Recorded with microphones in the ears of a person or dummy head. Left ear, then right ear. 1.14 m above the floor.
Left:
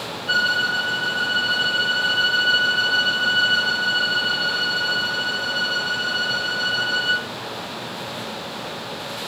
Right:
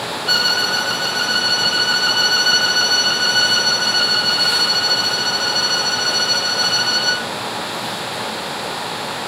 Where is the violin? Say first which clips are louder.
Right 3 dB; 80° right, 0.8 m.